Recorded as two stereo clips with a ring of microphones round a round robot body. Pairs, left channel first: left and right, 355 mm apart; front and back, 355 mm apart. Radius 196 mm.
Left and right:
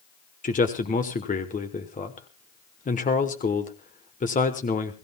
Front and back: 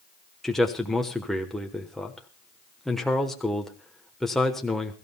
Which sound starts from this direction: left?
A man speaking, at 0.4 s.